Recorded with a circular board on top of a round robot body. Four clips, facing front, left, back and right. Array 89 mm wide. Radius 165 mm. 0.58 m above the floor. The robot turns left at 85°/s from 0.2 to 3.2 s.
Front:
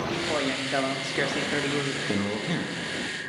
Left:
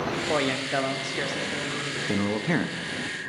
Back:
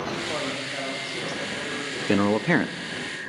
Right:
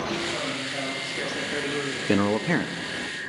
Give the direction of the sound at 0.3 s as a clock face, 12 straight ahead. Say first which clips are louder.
Left 5 dB, front 3 dB; 9 o'clock.